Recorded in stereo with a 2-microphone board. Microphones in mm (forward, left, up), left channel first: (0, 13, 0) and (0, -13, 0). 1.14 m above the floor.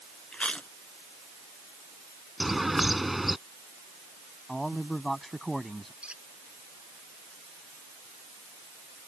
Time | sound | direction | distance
0.3 | chewing | 50° left (ahead or behind) | ?
2.4 | a bird | 5° right (ahead or behind) | ?
4.5 | a man speaking | 10° left (ahead or behind) | ?
6.0 | a squeak | 45° right (ahead or behind) | ?